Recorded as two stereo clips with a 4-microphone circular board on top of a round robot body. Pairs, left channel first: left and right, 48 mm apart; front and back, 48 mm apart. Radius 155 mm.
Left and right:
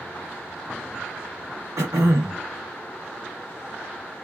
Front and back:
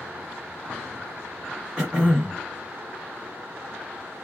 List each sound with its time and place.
1.8 s throat clearing: 100° right, 0.6 m